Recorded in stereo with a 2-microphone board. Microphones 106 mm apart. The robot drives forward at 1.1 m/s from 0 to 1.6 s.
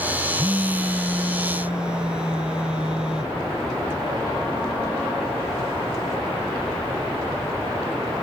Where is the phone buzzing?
30° right (ahead or behind), 0.5 m; by 3.4 s 10° right (ahead or behind), 1.6 m.